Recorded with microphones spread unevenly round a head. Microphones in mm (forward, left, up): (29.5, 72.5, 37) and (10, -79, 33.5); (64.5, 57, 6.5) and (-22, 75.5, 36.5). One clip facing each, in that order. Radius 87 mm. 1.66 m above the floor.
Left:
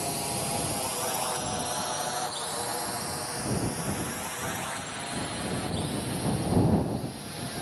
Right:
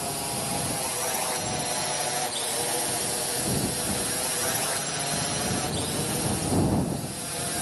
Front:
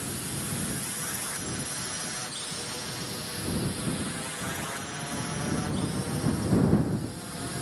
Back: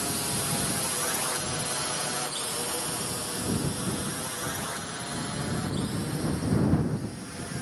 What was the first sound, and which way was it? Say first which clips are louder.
A drone: even, back 4 dB; 165° left.